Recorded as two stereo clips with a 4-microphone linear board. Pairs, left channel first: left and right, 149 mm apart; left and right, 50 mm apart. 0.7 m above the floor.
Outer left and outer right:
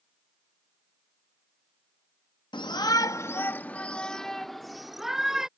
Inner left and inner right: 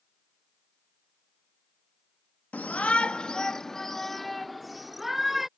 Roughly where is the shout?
Left.